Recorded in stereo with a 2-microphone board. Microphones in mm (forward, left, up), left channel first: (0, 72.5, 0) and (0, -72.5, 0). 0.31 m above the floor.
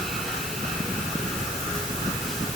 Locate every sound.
Only background noise.